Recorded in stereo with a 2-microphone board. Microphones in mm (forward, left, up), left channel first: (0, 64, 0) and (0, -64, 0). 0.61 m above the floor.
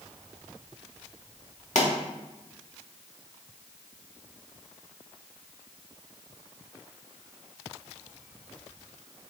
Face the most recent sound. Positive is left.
turn(degrees=70)  # may be behind; listen again after turning